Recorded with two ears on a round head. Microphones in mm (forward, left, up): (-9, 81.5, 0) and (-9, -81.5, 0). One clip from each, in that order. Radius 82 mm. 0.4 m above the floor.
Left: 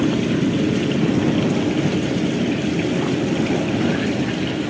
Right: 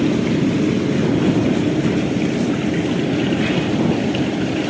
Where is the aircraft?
Centre (ahead or behind); by 4.7 s 20° right (ahead or behind).